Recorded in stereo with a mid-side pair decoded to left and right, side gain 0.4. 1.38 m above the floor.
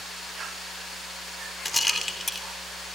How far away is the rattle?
About 2.5 m.